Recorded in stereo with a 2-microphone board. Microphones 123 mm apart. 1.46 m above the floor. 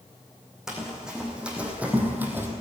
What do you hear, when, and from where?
0.7 s running footsteps: 5° right (ahead or behind), 4 m; by 2.5 s 15° right (ahead or behind), 2.5 m